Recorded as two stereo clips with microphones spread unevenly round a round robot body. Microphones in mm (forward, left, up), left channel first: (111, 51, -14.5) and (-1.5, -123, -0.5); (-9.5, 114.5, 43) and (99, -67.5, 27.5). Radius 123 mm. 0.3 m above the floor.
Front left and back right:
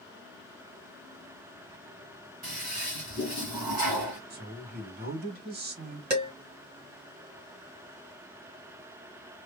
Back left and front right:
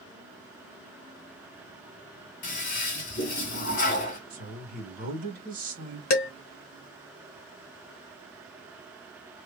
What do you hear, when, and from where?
2.4 s a toilet flushing: 165° left, 2.0 m
4.3 s a woman speaking: 90° right, 1.9 m
6.1 s dishes clattering: 165° left, 1.6 m